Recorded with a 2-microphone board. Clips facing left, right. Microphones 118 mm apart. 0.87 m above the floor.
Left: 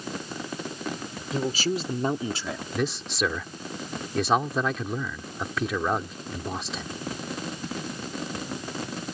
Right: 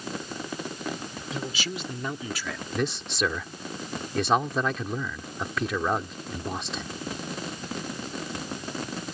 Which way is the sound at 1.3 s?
45° left (ahead or behind).